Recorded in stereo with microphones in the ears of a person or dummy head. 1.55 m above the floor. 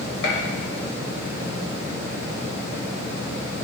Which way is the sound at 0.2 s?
85° left.